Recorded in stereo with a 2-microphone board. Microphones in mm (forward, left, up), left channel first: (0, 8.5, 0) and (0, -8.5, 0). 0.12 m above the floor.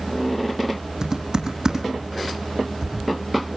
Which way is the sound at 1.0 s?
35° right (ahead or behind).